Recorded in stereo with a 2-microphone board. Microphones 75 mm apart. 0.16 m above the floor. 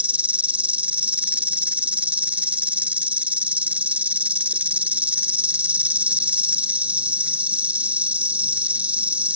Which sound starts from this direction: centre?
An insect, at 0.0 s.